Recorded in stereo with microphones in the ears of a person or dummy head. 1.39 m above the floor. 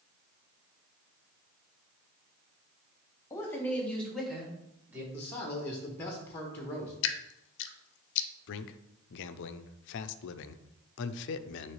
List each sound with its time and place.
3.3 s a man speaking: 15° left (ahead or behind), 1.7 m; by 5.0 s 10° right (ahead or behind), 1.9 m
5.1 s a man speaking: 15° left (ahead or behind), 1.1 m
7.0 s dripping: 70° left (ahead or behind), 0.6 m
8.5 s a man speaking: 70° left (ahead or behind), 0.5 m